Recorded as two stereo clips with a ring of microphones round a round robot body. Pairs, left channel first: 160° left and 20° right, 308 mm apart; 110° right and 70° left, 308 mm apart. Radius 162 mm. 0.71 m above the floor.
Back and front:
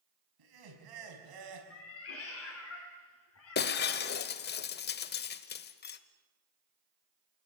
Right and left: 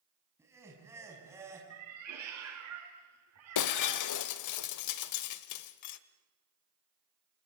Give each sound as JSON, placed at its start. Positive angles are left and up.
{"t": 0.4, "sound": "laughter", "azimuth_deg": -15, "distance_m": 5.5}
{"t": 1.7, "sound": "a cat meowing", "azimuth_deg": 110, "distance_m": 4.5}
{"t": 3.5, "sound": "breaking glass", "azimuth_deg": -145, "distance_m": 0.9}